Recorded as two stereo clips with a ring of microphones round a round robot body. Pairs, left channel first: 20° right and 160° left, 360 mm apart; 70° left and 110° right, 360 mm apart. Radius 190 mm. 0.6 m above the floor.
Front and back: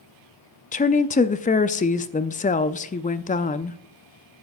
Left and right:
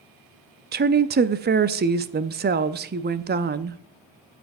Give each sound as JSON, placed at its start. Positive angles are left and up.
{"t": 0.7, "sound": "a woman speaking", "azimuth_deg": -75, "distance_m": 0.6}